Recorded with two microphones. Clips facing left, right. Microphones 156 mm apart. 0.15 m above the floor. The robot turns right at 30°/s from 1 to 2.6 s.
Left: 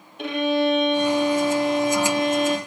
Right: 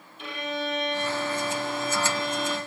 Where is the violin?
75° left, 1.7 m; by 2.6 s 120° left, 1.7 m.